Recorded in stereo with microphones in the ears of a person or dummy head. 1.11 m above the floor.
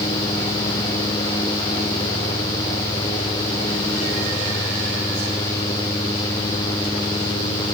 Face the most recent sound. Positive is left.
No sound to turn to.